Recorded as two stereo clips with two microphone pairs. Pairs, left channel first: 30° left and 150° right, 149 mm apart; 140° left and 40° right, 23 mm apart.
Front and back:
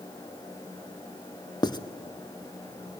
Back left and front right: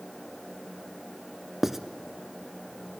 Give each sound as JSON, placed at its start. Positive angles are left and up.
{"t": 1.6, "sound": "writing", "azimuth_deg": 25, "distance_m": 0.6}